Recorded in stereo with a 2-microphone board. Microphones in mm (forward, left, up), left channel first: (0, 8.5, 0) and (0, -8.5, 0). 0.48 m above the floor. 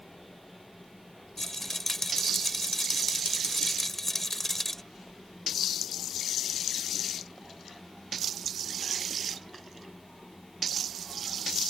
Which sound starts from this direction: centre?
A rattle, at 1.4 s.